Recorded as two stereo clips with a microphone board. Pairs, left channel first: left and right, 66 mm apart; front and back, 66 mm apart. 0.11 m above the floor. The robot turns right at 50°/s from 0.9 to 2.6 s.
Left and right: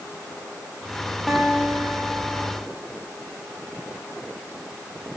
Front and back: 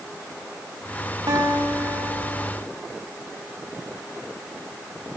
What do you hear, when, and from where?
1.3 s a guitar: 175° left, 3.5 m; by 2.5 s 120° right, 3.5 m